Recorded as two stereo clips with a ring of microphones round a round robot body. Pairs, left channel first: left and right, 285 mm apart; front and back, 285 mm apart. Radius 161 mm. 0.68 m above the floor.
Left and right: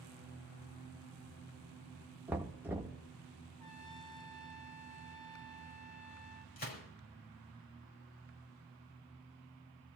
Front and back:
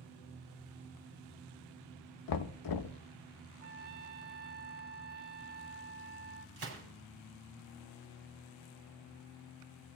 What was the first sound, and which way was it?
Knocking, 5° right.